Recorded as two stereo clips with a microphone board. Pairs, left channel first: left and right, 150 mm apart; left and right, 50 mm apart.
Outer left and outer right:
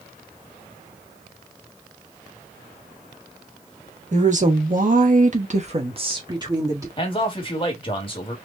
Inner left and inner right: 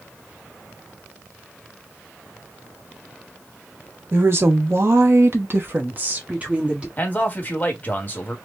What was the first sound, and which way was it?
A woman speaking, 50° right (ahead or behind).